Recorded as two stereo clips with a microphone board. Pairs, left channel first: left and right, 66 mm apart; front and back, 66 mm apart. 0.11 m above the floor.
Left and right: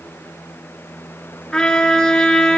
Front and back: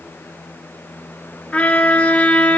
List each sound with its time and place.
1.5 s a trumpet: 25° left, 1.1 m